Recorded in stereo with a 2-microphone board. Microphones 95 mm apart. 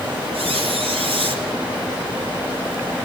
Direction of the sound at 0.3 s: 80° right.